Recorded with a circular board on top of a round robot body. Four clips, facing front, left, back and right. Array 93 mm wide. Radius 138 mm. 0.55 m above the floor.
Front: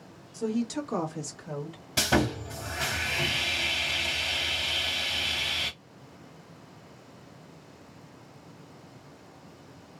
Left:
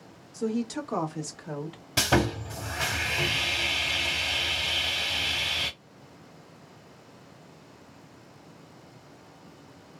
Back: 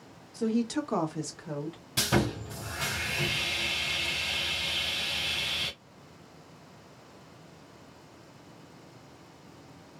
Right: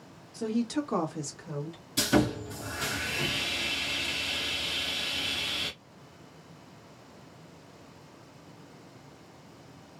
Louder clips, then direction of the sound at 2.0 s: Even, front 2 dB; 70° left.